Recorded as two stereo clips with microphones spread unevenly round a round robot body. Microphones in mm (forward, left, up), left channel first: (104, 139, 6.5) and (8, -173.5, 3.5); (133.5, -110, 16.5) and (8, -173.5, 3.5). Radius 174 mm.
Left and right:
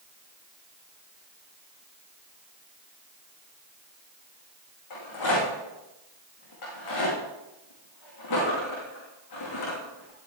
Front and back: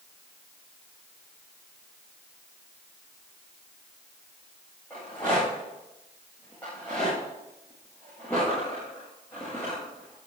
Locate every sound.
4.9 s a rattle: 110° left, 6 m